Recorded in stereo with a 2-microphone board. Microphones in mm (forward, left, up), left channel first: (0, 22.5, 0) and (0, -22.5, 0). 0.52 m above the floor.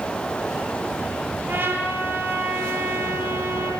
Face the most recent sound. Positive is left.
turn(degrees=-45)  # may be behind; listen again after turning